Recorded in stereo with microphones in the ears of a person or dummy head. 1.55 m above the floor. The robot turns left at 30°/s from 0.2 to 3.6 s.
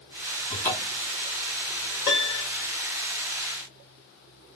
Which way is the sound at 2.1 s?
25° left (ahead or behind).